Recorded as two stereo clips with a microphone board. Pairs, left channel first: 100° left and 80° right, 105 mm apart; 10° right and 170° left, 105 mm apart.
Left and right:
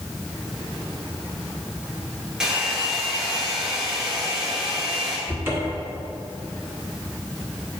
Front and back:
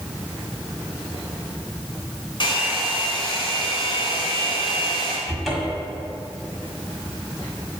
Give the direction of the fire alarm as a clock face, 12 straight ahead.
I don't hear a fire alarm.